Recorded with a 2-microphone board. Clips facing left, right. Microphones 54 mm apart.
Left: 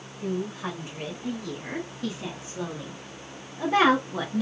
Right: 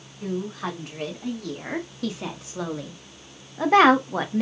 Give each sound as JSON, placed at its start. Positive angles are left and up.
{"t": 0.2, "sound": "a woman speaking", "side_deg": -65, "distance_m": 2.5}